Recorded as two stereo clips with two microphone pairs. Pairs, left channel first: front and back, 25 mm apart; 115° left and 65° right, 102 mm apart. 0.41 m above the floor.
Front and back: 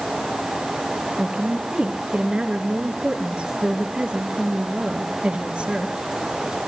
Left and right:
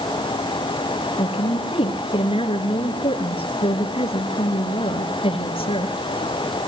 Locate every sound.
1.2 s a woman speaking: 135° left, 5.5 m